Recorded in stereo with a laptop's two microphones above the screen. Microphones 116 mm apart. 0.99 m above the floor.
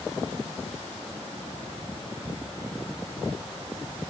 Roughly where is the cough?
I don't hear a cough.